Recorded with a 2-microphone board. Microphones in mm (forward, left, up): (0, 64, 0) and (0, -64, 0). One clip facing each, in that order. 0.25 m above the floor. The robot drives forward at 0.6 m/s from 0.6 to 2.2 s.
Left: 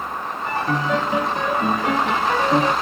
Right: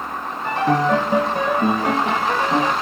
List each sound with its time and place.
0.5 s a piano: 65° right (ahead or behind), 0.9 m; by 2.7 s 35° right (ahead or behind), 1.5 m